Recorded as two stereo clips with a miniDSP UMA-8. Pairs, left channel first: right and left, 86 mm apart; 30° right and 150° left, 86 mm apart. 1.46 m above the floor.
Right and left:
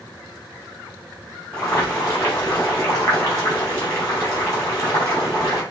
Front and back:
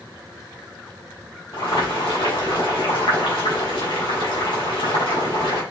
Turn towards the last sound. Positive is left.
turn(degrees=-35)